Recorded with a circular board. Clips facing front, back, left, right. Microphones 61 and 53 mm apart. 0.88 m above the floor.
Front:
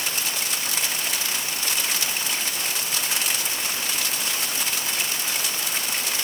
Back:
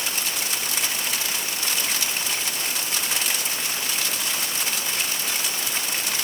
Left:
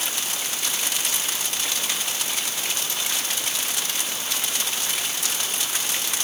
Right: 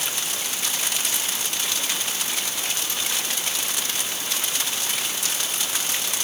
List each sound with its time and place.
Only background noise.